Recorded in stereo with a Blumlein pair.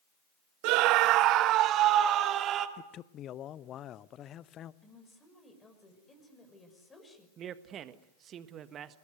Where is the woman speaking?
15° left, 5.5 m.